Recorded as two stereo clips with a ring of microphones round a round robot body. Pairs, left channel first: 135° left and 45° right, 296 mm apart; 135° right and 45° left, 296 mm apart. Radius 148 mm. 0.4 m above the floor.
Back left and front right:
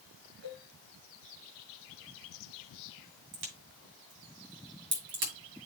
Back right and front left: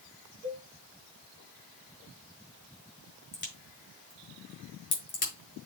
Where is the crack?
70° right, 6.5 m.